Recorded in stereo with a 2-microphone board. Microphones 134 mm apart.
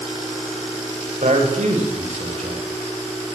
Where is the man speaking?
70° right (ahead or behind), 10 m.